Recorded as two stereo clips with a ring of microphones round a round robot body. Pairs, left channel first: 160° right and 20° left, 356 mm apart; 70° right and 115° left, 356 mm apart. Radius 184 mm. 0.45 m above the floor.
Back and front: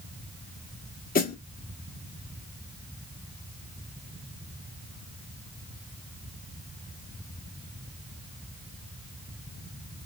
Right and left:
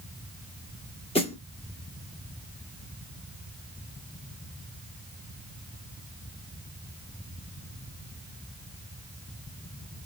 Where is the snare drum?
125° right, 1.5 m.